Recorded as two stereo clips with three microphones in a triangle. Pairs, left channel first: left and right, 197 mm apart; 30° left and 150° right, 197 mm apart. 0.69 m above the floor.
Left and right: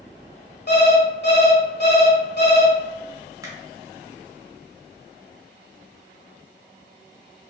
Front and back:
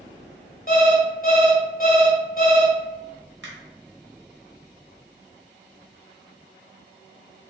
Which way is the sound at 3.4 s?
165° right.